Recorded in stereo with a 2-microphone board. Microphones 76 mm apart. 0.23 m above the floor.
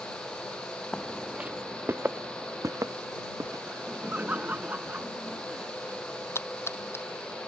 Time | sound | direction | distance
0.9 | footsteps | 10° left (ahead or behind) | ?
3.7 | laughter | 20° right (ahead or behind) | ?
6.3 | a splash | 30° left (ahead or behind) | ?